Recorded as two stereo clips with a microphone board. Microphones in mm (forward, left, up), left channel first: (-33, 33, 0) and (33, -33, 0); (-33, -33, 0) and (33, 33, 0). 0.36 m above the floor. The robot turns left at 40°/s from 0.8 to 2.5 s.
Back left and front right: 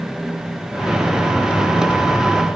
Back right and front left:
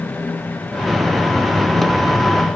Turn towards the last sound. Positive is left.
No sound to turn to.